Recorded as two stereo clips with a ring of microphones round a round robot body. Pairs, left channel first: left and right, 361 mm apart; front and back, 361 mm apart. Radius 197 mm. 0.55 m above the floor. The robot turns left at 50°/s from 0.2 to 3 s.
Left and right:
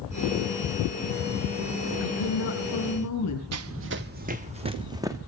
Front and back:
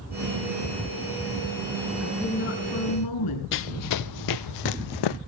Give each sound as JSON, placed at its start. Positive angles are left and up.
{"t": 2.0, "sound": "a woman speaking", "azimuth_deg": 90, "distance_m": 6.5}
{"t": 3.5, "sound": "running footsteps", "azimuth_deg": -50, "distance_m": 0.8}